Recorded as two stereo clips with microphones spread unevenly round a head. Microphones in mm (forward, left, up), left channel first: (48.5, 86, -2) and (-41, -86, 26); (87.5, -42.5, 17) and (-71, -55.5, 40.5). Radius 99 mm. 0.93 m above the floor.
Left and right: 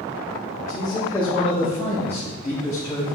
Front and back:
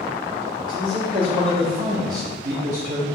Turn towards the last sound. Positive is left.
turn(degrees=135)